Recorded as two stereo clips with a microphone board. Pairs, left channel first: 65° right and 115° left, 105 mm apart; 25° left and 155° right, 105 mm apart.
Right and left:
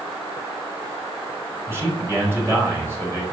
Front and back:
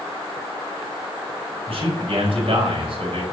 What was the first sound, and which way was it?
A man speaking, straight behind.